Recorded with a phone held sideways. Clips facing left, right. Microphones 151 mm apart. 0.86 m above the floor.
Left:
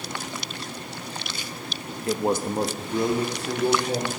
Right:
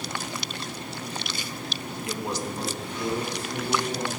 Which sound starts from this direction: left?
A man speaking, at 2.1 s.